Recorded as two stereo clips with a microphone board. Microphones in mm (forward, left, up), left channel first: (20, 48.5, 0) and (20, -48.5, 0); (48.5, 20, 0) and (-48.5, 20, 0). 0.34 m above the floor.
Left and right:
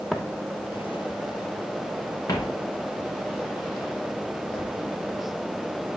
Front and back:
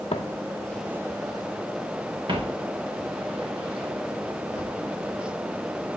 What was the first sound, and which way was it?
Footsteps, 5° right.